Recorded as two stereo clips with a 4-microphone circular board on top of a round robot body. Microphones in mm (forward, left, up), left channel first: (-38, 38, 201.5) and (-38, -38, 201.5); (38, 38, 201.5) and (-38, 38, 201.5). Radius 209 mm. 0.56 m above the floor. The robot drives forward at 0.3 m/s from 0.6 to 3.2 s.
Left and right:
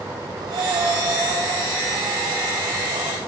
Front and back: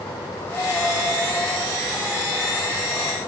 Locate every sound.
0.4 s breathing: 65° right, 4 m; by 3.2 s 75° right, 4 m